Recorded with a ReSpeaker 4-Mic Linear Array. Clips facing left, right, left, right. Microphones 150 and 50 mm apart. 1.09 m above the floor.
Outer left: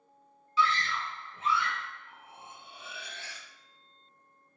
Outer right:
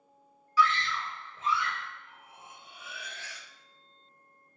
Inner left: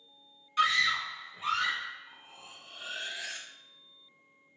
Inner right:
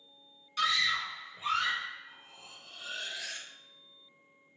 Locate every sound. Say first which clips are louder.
0.6 s a scream: outer right 2 dB, inner left 3 dB; 20° left (ahead or behind), 0.5 m; by 1.9 s 70° left (ahead or behind), 1.9 m
2.1 s cutlery clinking: outer left 2 dB, inner left 1 dB; 30° left (ahead or behind), 0.5 m